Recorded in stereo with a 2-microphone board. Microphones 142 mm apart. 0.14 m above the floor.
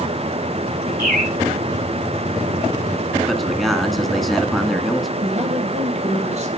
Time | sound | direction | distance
1.0 | a bird | 80° right | 1.5 m
3.3 | a man speaking | centre (ahead or behind) | 1.8 m
5.2 | a man speaking | 55° right (ahead or behind) | 4.5 m